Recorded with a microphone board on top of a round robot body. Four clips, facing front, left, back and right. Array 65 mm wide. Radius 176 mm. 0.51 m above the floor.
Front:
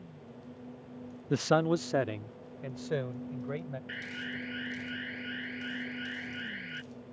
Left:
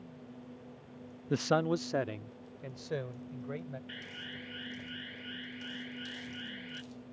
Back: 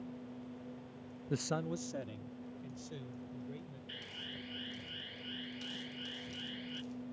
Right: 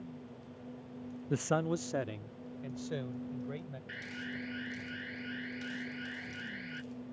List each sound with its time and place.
1.3 s a man speaking: 25° left; by 3.8 s 15° left
3.9 s an alarm: 15° right